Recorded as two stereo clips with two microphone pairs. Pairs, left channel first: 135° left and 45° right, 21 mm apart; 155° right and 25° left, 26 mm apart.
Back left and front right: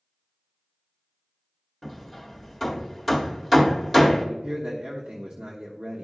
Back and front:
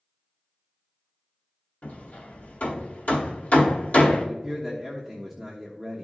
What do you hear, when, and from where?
1.8 s hammering: 130° right, 1.8 m
4.2 s a man speaking: 60° right, 1.2 m